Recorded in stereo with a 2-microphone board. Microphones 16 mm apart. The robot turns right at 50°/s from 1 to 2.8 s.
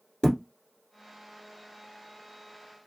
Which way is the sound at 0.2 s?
65° left (ahead or behind).